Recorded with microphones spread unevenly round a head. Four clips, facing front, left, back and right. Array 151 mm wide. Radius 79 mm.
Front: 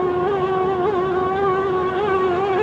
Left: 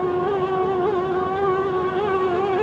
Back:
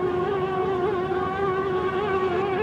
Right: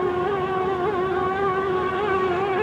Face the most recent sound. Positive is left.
No sound to turn to.